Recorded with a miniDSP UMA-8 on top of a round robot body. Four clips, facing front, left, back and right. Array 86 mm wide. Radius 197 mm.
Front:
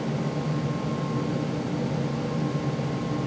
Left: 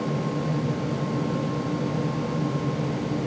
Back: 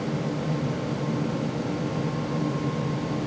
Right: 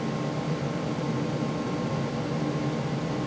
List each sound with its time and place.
Only background noise.